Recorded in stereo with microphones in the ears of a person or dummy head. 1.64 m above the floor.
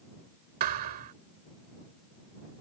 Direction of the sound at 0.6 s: 55° right (ahead or behind).